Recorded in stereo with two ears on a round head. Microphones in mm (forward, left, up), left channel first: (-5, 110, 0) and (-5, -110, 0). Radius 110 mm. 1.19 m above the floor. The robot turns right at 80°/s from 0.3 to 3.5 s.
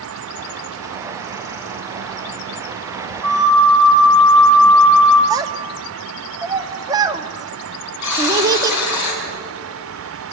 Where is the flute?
10° left (ahead or behind), 3 m; by 5.2 s 10° right (ahead or behind), 3 m.